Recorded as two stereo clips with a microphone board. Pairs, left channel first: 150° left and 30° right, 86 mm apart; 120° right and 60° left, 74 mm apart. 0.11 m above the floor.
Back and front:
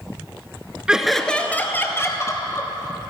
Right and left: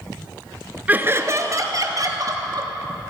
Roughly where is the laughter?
Ahead left.